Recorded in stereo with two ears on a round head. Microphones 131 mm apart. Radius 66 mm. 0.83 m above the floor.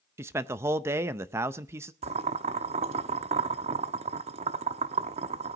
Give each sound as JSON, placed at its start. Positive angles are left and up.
{"t": 0.2, "sound": "a man speaking", "side_deg": -20, "distance_m": 0.5}
{"t": 2.0, "sound": "boiling", "side_deg": -45, "distance_m": 0.7}